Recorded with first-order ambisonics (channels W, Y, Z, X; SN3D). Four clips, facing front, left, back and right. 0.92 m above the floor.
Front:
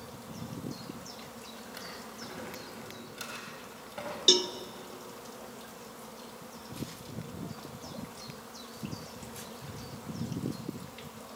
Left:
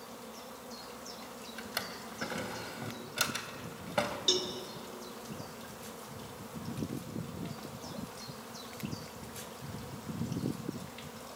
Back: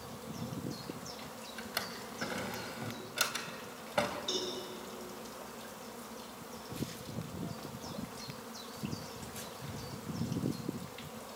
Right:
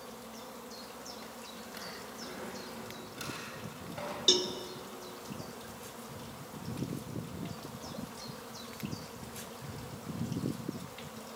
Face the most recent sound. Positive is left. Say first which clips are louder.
# right 5 dB, front 12 dB
turn(degrees=-15)